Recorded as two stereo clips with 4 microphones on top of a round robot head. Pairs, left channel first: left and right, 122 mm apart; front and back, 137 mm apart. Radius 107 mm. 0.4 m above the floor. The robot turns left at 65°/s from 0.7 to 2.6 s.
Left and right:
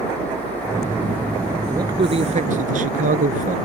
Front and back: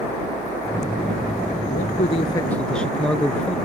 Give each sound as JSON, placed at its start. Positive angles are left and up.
{"t": 1.7, "sound": "a man speaking", "azimuth_deg": -25}